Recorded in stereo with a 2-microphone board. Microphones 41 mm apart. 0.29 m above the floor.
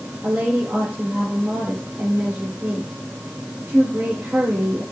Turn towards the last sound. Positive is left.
turn(degrees=-65)  # may be behind; listen again after turning